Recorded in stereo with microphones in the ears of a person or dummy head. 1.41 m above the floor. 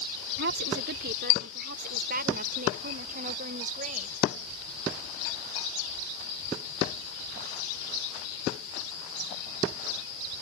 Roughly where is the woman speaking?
Right.